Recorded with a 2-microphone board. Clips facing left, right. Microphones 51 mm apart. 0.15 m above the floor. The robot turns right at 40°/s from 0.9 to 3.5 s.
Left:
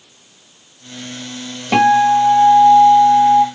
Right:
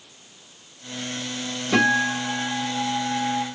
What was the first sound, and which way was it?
A guitar, 65° left.